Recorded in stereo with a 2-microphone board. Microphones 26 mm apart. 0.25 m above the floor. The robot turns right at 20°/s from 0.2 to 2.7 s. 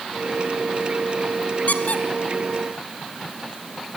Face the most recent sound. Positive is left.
turn(degrees=55)  # may be behind; listen again after turning